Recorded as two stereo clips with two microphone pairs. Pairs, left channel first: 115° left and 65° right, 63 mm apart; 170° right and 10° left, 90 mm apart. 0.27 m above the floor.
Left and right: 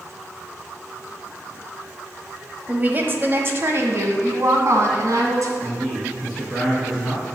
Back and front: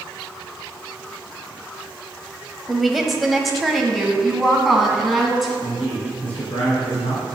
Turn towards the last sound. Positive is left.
turn(degrees=-155)